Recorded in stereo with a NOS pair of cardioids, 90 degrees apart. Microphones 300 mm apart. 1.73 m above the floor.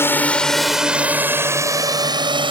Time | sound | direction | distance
0.0 | a drone | 5° left | ?